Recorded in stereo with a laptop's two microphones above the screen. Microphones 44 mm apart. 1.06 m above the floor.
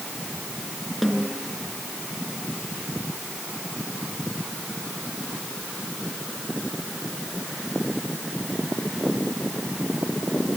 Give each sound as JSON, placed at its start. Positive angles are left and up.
{"t": 1.0, "sound": "a snare drum", "side_deg": 0, "distance_m": 5.5}